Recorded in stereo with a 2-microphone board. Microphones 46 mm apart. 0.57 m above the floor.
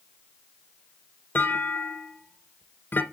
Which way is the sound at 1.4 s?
45° left (ahead or behind).